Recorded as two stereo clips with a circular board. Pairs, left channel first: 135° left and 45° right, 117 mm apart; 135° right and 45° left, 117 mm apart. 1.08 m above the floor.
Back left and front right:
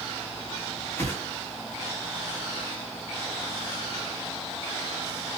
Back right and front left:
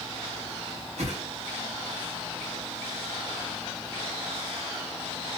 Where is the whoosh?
70° left, 1.7 m.